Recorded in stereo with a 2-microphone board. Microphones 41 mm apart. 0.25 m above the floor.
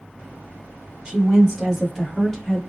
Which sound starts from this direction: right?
A woman speaking, at 1.1 s.